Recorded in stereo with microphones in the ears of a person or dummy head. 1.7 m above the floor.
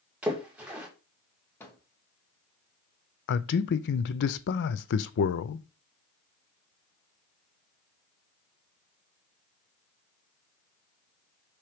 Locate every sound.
0.2 s a splash: 10° right (ahead or behind), 2 m
1.6 s a microwave: 10° left (ahead or behind), 1.2 m
3.3 s a man speaking: 60° left (ahead or behind), 0.6 m